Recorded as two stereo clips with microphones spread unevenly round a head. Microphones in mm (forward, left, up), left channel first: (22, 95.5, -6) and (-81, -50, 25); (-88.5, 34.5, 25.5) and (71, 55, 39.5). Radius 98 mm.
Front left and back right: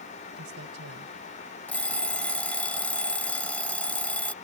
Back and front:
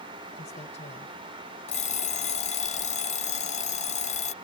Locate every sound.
0.4 s a man speaking: 115° right
1.7 s an alarm clock: 140° left